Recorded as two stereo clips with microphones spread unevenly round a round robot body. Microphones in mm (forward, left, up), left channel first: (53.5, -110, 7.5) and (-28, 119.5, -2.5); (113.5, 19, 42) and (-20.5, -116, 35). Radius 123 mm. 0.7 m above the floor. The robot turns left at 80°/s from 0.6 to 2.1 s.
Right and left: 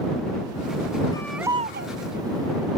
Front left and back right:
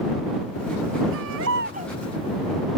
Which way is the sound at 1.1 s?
145° right.